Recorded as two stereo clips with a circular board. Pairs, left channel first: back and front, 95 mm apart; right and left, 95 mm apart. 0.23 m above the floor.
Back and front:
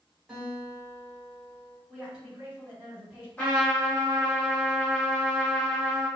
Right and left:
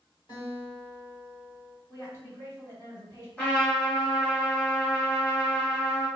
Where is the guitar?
85° right, 1.7 m.